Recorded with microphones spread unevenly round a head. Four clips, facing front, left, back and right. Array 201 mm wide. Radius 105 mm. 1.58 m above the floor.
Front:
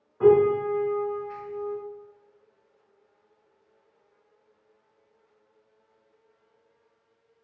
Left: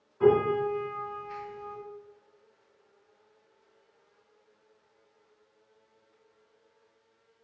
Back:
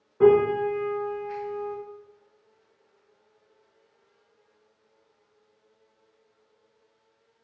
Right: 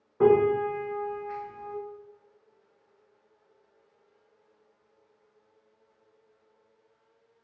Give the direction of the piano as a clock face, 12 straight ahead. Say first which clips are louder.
Right 2 dB, even; 4 o'clock.